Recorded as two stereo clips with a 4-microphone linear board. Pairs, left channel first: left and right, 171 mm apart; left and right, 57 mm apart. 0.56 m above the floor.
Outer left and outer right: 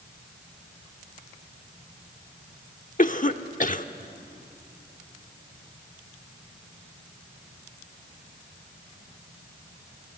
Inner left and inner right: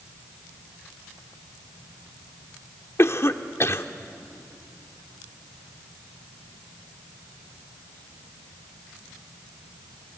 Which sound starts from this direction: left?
A cough, at 3.0 s.